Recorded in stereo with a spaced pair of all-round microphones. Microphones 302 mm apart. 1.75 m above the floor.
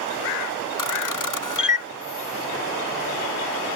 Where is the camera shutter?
75° left (ahead or behind).